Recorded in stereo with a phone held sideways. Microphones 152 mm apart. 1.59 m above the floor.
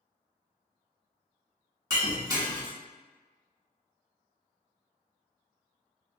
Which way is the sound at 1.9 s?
25° right (ahead or behind).